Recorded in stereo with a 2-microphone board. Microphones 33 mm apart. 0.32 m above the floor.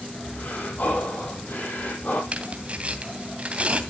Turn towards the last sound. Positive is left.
turn(degrees=-35)  # may be behind; listen again after turning